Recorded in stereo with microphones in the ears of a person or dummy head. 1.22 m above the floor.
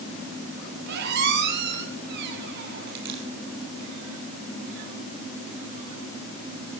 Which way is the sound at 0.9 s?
55° right (ahead or behind).